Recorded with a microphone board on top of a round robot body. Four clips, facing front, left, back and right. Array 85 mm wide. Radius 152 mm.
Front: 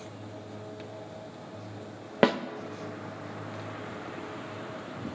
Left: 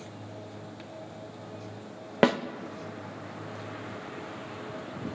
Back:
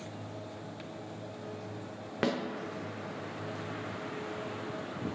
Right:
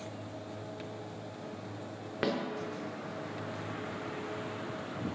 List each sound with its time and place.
2.2 s a snare drum: 50° left, 0.6 m